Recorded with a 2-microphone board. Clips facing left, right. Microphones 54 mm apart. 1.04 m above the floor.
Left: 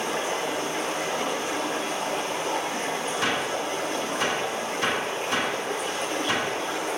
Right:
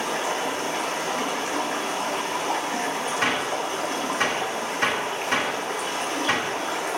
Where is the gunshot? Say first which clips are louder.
Right 2 dB; 50° right (ahead or behind), 6 m.